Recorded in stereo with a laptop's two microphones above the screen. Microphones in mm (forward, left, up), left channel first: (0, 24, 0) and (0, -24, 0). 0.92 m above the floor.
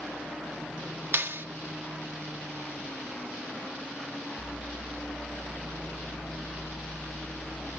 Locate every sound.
1.1 s a clap: 55° right (ahead or behind)